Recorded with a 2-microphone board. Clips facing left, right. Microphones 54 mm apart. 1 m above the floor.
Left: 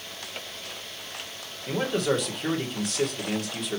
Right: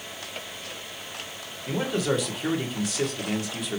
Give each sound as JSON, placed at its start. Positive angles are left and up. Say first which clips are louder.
{"t": 1.7, "sound": "a man speaking", "louder": "even", "side_deg": 0, "distance_m": 2.0}